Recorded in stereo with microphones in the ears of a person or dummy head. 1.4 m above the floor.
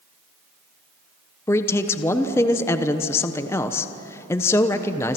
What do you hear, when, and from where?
1.5 s a man speaking: 20° left (ahead or behind), 0.9 m